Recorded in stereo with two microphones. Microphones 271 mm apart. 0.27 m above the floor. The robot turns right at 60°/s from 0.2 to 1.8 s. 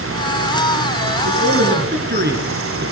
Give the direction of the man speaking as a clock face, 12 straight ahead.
3 o'clock.